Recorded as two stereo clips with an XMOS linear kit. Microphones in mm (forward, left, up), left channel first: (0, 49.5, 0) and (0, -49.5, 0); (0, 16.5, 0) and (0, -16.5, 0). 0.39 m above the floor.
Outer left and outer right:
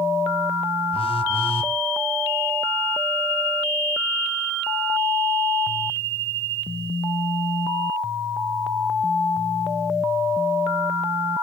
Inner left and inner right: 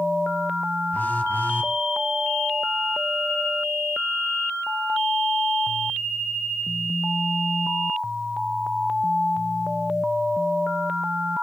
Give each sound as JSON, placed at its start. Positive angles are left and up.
{"t": 0.9, "sound": "a phone buzzing", "side_deg": 70, "distance_m": 1.7}